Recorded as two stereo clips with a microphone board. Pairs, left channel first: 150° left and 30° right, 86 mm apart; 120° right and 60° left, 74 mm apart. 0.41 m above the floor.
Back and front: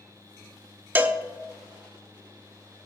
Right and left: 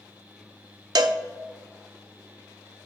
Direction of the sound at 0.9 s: 35° left.